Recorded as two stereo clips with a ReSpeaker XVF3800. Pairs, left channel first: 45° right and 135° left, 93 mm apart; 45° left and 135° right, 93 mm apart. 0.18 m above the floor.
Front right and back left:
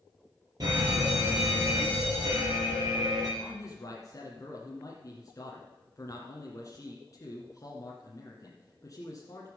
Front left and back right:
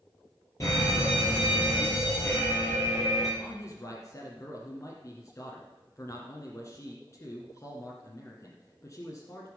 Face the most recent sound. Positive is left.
turn(degrees=-5)